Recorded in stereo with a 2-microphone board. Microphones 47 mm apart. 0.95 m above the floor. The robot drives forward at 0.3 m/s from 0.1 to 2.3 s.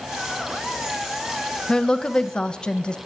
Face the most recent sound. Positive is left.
turn(degrees=20)  # may be behind; listen again after turning